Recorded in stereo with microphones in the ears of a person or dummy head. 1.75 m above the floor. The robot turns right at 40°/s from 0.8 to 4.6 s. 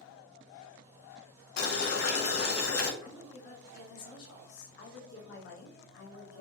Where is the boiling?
60° left, 1.0 m; by 2.9 s 115° left, 1.0 m.